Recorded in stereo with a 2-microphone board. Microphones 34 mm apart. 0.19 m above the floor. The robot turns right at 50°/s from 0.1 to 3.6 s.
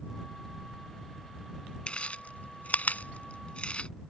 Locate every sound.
1.9 s chewing: 35° left (ahead or behind)